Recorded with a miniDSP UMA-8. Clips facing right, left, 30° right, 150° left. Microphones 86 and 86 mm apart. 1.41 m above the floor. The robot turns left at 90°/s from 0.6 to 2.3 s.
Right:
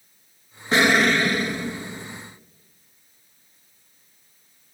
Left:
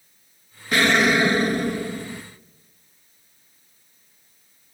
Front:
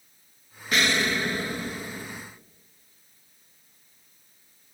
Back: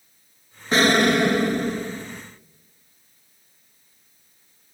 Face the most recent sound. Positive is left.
turn(degrees=65)